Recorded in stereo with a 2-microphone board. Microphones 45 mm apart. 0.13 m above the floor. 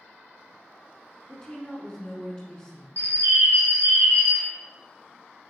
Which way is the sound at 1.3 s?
15° left (ahead or behind).